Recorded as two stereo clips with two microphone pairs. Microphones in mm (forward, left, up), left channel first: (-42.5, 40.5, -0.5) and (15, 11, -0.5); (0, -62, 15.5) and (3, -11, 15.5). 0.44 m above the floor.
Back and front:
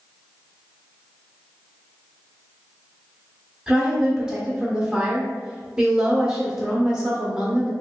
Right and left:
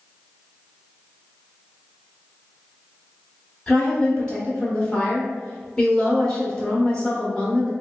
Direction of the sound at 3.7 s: 80° right.